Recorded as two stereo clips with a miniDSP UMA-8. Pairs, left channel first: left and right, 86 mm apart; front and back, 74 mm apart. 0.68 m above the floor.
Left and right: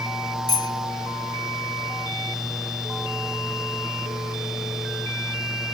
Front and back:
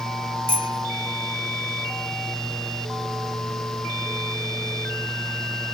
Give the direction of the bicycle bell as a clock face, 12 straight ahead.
8 o'clock.